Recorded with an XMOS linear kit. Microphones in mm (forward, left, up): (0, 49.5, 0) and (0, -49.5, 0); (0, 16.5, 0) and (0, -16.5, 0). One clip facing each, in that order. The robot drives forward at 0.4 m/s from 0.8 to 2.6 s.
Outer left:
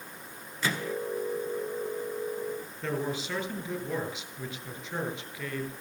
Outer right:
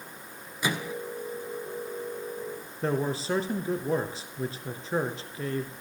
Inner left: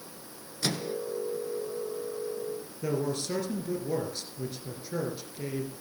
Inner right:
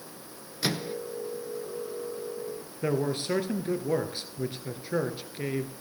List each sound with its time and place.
0.6 s a microwave: 15° right (ahead or behind), 0.9 m
2.8 s a man speaking: 35° right (ahead or behind), 1.8 m